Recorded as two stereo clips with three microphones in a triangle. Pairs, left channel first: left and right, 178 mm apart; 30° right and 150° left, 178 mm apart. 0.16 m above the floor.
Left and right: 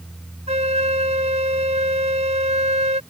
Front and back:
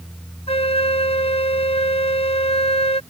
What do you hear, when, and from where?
0.5 s a flute: 65° right